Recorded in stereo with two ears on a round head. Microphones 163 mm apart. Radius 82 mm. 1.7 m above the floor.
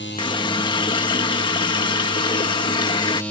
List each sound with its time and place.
0.2 s a running tap: 25° left (ahead or behind)